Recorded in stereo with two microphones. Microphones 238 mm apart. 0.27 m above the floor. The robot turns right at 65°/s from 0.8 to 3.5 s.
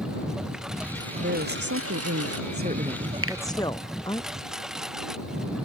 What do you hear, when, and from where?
0.0 s a lawn mower: straight behind; by 5.7 s straight ahead
1.2 s a woman speaking: 135° right; by 4.2 s 15° left
3.2 s a finger snap: 65° right (ahead or behind); by 3.4 s 70° right (ahead or behind)